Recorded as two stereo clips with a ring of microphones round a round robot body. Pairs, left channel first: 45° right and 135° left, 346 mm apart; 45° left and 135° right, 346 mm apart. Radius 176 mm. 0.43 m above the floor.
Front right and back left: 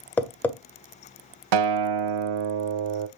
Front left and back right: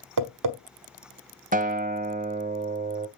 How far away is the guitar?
About 0.7 m.